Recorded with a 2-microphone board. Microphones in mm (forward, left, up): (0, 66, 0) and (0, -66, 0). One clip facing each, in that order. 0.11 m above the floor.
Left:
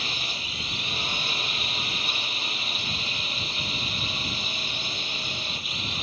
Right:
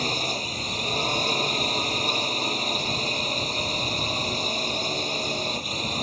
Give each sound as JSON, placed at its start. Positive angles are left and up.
{"t": 0.0, "sound": "a drone", "side_deg": -40}